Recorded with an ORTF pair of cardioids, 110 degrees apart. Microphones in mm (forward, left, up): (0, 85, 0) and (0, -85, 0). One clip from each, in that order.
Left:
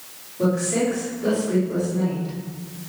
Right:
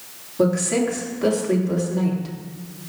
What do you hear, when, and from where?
0.4 s a woman speaking: 70° right, 4 m